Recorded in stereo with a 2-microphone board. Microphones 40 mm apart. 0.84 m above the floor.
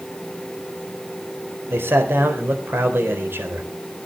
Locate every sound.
1.7 s a man speaking: 75° right (ahead or behind), 3.5 m